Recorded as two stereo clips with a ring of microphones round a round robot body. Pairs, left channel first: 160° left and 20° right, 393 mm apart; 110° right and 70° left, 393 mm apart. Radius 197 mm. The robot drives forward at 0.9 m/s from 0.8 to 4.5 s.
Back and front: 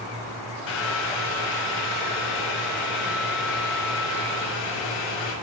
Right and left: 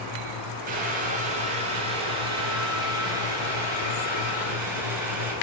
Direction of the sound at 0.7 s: 135° left.